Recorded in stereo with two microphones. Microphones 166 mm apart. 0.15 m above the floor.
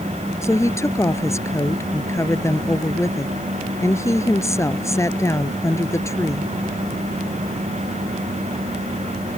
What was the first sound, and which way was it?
A woman speaking, 20° left (ahead or behind).